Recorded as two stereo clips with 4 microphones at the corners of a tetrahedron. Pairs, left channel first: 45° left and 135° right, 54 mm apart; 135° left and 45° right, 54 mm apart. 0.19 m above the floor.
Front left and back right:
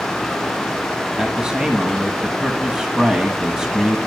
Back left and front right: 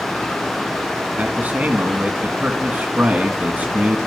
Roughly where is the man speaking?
Right.